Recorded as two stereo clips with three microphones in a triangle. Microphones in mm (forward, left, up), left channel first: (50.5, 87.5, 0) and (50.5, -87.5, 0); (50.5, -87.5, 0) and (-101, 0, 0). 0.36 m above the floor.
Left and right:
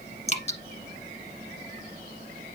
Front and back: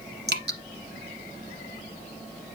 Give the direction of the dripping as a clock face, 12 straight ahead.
7 o'clock.